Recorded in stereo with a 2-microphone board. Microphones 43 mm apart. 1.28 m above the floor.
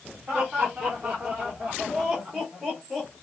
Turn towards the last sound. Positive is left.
turn(degrees=-5)  # may be behind; listen again after turning